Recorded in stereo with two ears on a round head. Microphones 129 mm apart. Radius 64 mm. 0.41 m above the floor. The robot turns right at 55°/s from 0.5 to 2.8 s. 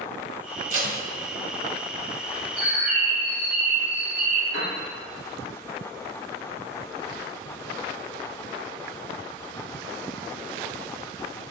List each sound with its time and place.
0.7 s tape being pulled: 60° right (ahead or behind), 1.0 m; by 1.0 s 70° right (ahead or behind), 1.0 m
2.6 s a bird: centre (ahead or behind), 1.4 m; by 4.4 s 10° right (ahead or behind), 1.4 m
4.5 s a piano: 25° right (ahead or behind), 1.8 m